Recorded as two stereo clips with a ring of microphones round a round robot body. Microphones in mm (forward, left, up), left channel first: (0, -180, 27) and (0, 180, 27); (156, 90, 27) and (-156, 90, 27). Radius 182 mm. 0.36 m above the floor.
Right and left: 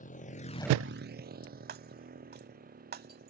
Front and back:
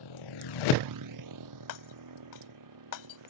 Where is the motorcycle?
20° right; by 3.3 s 160° left.